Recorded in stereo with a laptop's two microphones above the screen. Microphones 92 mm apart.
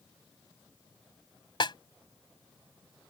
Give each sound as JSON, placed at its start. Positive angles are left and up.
{"t": 1.6, "sound": "a snare drum", "side_deg": 50}